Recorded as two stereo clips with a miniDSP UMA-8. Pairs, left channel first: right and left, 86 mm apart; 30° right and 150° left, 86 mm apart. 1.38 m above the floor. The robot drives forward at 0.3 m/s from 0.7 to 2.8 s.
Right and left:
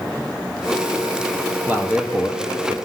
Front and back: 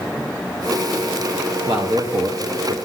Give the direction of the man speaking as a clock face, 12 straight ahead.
7 o'clock.